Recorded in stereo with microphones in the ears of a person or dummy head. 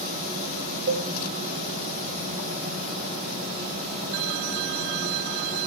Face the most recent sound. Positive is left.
turn(degrees=-50)  # may be behind; listen again after turning